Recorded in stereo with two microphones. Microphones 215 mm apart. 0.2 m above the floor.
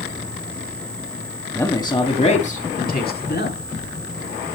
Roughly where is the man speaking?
Centre.